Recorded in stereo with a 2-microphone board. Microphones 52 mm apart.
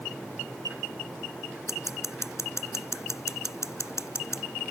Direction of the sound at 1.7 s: 70° left (ahead or behind).